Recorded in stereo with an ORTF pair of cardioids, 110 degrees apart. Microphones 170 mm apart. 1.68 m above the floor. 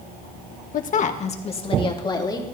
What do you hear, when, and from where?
0.7 s a woman speaking: 55° left, 1.8 m; by 2.4 s 25° left, 3 m